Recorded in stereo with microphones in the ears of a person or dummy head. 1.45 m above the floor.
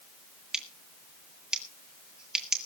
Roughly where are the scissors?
Centre.